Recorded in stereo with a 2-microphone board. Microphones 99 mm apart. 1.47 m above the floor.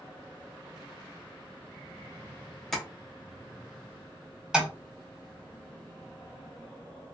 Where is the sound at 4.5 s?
5° right (ahead or behind), 1.2 m.